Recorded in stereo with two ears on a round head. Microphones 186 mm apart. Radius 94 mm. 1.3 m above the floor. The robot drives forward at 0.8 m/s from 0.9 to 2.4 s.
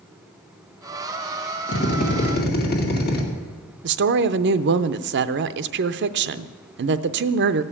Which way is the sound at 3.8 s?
55° right (ahead or behind).